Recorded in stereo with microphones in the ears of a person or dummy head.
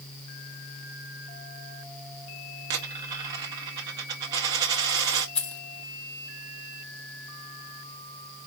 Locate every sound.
2.7 s a dropped coin: 20° right (ahead or behind), 0.6 m
5.3 s keys jangling: 5° left (ahead or behind), 0.8 m